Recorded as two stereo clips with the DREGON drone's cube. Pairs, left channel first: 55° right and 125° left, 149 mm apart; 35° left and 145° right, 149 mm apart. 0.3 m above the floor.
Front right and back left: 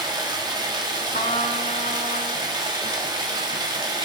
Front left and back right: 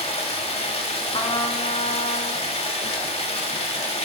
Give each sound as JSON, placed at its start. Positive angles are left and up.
{"t": 0.0, "sound": "running water", "azimuth_deg": 70, "distance_m": 1.2}
{"t": 1.1, "sound": "a trumpet", "azimuth_deg": -20, "distance_m": 0.9}